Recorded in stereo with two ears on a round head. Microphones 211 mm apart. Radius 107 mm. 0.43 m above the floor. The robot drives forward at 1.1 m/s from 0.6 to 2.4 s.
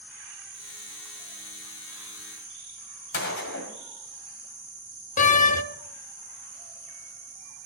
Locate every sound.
3.1 s a gunshot: 45° left (ahead or behind), 2 m
5.2 s a door slam: 35° left (ahead or behind), 0.7 m